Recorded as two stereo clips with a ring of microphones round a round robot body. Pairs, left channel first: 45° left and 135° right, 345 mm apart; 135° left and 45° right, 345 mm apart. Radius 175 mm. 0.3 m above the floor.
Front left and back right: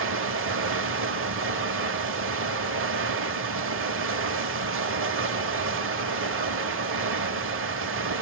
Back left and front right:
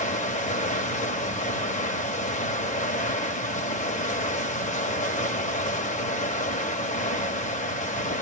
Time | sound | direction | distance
0.0 | running water | 165° right | 1.3 m